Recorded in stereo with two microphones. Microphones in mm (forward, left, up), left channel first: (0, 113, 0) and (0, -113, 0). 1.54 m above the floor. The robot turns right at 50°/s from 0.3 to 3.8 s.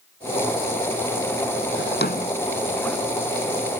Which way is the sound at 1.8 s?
60° left (ahead or behind).